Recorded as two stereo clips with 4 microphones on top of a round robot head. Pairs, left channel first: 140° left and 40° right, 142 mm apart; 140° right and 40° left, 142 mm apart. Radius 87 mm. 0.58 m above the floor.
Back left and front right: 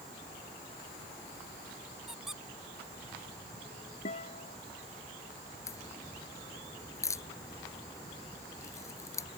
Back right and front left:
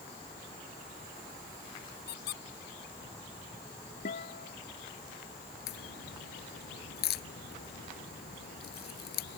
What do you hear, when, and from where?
2.1 s a squeak: 130° right
4.0 s a guitar: 175° right
5.7 s a crack: 150° right